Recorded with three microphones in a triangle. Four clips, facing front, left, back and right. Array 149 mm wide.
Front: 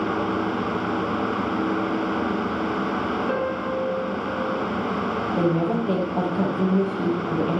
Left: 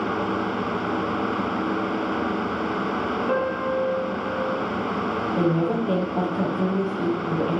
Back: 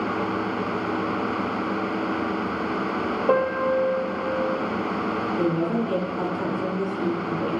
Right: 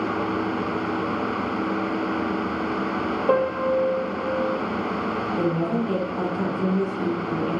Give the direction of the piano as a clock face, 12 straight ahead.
5 o'clock.